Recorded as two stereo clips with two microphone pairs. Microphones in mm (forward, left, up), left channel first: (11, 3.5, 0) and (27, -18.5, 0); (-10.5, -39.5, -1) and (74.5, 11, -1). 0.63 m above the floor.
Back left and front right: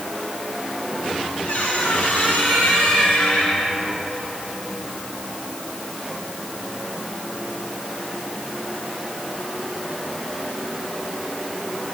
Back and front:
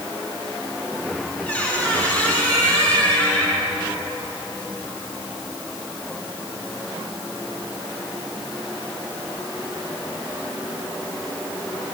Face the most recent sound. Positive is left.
turn(degrees=135)